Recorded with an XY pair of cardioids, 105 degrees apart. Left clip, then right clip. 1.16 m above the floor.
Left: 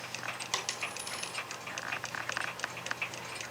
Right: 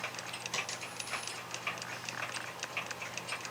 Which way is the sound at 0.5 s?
60° left.